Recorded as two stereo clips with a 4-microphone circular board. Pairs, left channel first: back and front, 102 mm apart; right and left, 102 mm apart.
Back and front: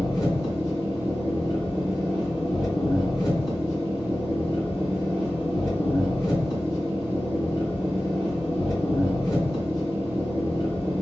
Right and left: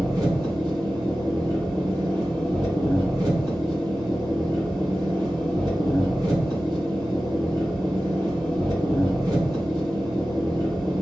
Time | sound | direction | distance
0.0 | an engine running | 135° left | 1.9 m